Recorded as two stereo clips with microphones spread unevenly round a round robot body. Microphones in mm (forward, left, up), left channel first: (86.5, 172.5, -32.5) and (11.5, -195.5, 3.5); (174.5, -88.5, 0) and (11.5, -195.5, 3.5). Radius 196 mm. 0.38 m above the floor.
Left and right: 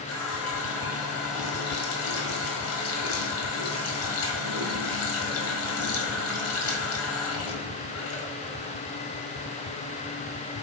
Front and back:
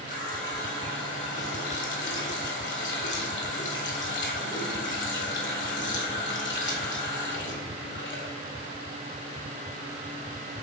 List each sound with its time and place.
0.1 s a running tap: 35° left, 1.4 m